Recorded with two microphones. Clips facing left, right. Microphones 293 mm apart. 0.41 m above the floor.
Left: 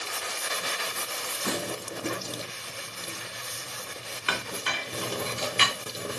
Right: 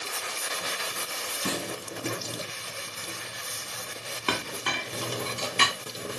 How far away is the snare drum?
About 5.5 m.